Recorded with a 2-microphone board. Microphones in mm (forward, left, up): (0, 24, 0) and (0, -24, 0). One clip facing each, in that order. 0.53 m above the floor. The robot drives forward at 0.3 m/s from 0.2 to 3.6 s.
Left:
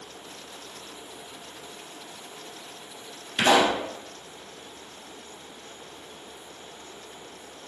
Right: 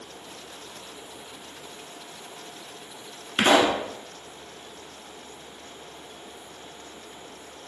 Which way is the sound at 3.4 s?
35° right (ahead or behind).